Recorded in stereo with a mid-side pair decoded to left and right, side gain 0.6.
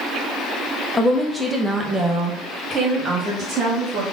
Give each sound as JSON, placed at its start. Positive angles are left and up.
{"t": 0.9, "sound": "a woman speaking", "azimuth_deg": 15, "distance_m": 1.3}